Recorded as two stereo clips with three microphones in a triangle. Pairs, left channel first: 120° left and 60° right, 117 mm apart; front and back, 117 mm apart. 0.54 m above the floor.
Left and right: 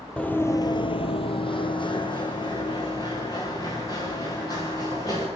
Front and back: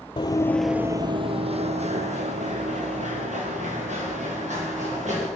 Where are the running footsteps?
40° left, 0.8 m; by 5.3 s straight behind, 5.5 m.